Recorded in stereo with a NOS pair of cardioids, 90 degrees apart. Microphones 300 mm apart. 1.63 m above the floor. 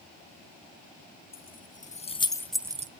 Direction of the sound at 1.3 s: 30° left.